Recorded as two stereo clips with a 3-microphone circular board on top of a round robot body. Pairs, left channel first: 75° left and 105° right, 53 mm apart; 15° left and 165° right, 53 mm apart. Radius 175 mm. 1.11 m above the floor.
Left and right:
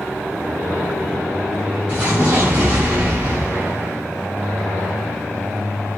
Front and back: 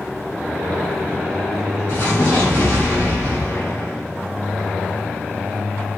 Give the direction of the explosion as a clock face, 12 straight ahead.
1 o'clock.